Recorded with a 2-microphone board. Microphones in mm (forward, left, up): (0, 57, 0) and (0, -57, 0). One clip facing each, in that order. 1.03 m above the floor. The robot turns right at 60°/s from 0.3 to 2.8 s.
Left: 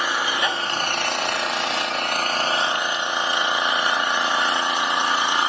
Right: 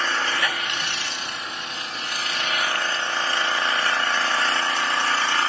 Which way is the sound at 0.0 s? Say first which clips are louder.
Left 2 dB; 15° left.